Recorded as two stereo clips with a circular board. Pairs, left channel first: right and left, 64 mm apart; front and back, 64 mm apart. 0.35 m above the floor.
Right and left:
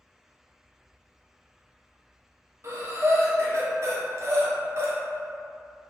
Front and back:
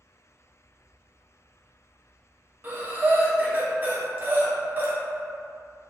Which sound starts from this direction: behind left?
Breathing, at 2.6 s.